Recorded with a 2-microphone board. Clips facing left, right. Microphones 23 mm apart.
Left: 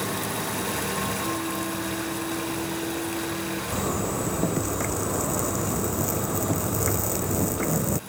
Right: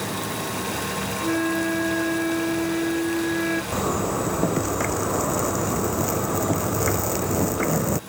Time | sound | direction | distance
1.2 | a flute | 60° right (ahead or behind) | ?
3.7 | a zipper | 25° right (ahead or behind) | ?